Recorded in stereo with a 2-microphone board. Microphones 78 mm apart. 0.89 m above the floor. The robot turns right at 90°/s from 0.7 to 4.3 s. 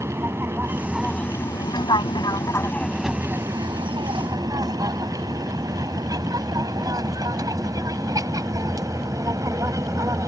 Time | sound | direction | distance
0.0 | an aircraft | 30° right (ahead or behind) | ?